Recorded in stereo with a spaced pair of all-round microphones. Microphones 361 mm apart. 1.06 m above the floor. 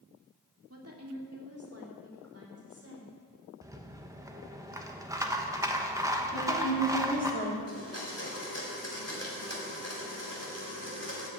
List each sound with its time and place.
0.7 s a woman speaking: 40° right (ahead or behind), 2 m
3.6 s a rattle: 10° right (ahead or behind), 1.0 m
6.3 s a woman speaking: 30° left (ahead or behind), 3 m
7.7 s a blender: 40° left (ahead or behind), 3 m